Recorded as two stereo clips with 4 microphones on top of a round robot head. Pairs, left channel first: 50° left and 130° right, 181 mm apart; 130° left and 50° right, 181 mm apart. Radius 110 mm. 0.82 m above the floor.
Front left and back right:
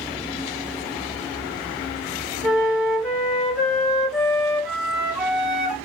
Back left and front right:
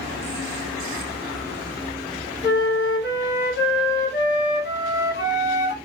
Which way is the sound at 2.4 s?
140° left.